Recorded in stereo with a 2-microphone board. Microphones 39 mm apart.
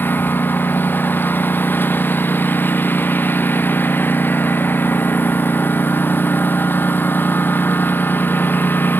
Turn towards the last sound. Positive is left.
turn(degrees=60)  # may be behind; listen again after turning